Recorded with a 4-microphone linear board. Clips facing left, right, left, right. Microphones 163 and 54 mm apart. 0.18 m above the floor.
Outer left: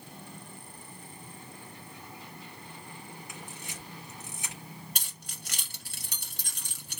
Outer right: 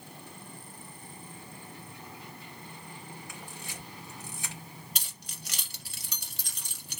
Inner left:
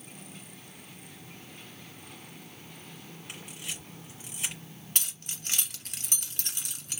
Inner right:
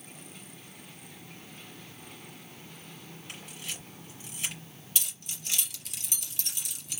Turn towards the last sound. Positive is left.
turn(degrees=50)  # may be behind; listen again after turning